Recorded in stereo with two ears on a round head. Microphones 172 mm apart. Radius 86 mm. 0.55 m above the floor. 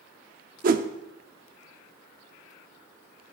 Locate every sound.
0.6 s a whoosh: 45° right (ahead or behind), 0.5 m